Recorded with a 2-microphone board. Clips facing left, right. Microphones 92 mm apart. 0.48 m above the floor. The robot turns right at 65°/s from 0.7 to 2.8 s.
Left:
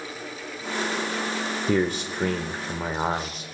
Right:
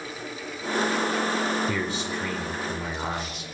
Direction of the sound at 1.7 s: 60° left.